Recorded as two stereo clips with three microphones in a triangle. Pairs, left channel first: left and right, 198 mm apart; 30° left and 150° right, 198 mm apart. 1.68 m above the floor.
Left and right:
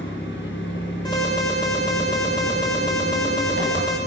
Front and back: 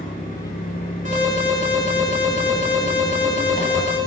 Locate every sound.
0.0 s an engine running: 75° left, 7 m
1.1 s an alarm: 160° left, 7 m